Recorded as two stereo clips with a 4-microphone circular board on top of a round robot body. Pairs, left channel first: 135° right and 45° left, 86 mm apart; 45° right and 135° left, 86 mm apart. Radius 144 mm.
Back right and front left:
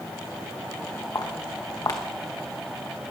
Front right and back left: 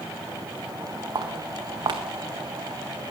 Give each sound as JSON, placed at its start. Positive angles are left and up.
{"t": 1.1, "sound": "footsteps", "azimuth_deg": 175, "distance_m": 1.4}